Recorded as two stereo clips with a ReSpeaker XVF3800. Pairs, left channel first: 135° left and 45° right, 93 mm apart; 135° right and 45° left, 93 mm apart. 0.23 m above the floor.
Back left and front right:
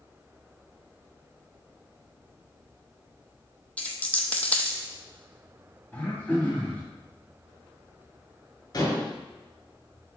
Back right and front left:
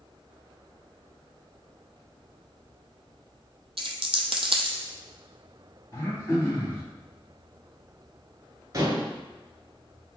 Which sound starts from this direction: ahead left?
A dropped coin, at 3.8 s.